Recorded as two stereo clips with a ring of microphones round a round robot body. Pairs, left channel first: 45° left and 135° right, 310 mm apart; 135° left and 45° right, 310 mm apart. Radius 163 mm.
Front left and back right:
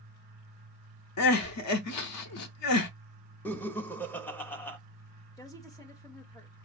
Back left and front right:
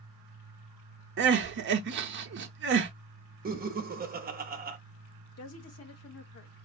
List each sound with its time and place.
1.2 s crying: 10° left, 0.6 m
3.5 s laughter: 35° right, 0.8 m
5.4 s a woman speaking: 120° left, 1.0 m